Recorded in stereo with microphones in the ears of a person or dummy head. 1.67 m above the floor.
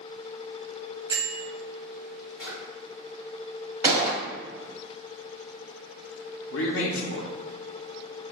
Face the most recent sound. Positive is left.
turn(degrees=70)  # may be behind; listen again after turning